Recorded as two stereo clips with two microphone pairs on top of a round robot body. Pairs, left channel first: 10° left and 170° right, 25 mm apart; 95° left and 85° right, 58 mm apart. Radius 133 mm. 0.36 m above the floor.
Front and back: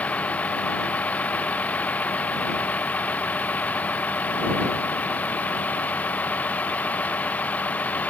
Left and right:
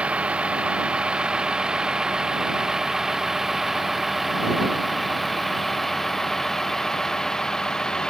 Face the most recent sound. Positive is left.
turn(degrees=20)